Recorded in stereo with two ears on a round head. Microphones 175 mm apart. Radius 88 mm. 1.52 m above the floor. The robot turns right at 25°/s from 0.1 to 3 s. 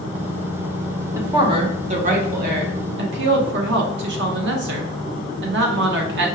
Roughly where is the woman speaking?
Behind.